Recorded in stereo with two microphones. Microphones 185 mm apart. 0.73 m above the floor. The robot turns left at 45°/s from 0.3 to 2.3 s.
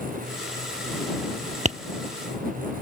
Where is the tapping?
40° right (ahead or behind); by 1.8 s 35° right (ahead or behind).